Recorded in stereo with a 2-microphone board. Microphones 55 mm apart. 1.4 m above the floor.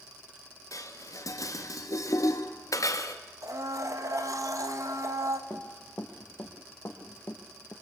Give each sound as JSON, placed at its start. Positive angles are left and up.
{"t": 0.7, "sound": "dishes clattering", "side_deg": 80, "distance_m": 1.7}
{"t": 3.4, "sound": "a blender", "side_deg": -75, "distance_m": 2.0}
{"t": 5.5, "sound": "running footsteps", "side_deg": 40, "distance_m": 2.5}